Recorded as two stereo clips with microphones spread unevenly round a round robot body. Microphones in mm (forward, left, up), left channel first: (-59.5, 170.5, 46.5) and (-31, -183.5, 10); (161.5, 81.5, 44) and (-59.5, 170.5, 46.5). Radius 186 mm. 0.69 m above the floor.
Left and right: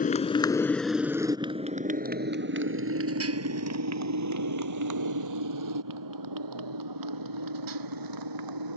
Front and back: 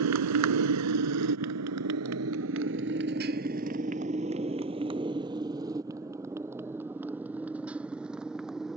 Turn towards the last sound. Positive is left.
turn(degrees=-115)